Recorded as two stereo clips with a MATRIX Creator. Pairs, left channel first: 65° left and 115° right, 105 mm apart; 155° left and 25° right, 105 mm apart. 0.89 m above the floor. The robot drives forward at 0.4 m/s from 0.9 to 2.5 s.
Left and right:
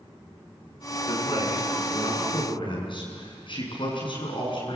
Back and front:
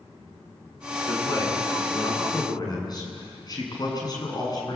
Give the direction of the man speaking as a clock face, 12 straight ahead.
9 o'clock.